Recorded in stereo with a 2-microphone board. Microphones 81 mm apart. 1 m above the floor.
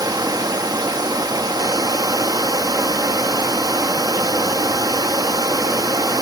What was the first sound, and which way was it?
Running water, 55° right (ahead or behind).